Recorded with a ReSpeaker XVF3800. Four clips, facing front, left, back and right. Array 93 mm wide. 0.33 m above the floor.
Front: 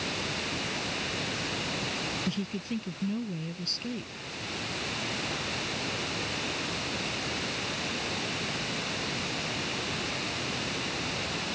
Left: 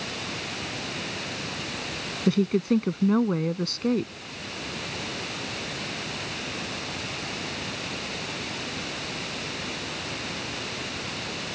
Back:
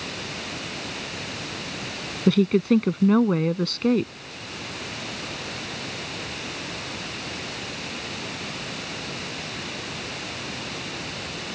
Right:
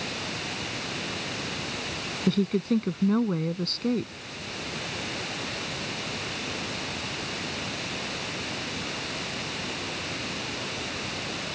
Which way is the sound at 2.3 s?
170° left.